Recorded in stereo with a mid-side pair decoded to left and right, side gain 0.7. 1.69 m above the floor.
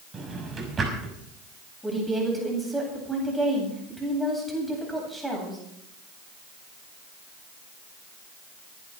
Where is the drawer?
25° right, 6 m.